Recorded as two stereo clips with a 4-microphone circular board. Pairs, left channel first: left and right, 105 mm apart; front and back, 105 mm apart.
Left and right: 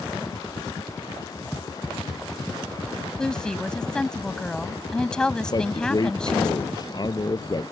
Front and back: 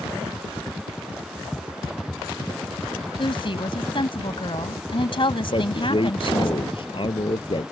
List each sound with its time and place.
3.2 s a woman speaking: 10° left
5.5 s a man speaking: 40° left